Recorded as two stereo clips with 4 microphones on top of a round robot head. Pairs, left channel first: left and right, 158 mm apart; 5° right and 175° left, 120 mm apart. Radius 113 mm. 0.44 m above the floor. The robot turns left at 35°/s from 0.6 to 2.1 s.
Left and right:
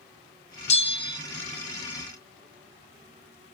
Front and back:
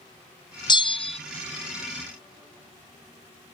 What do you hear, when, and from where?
0.7 s a bell: 50° left, 0.5 m; by 1.2 s 30° left, 0.5 m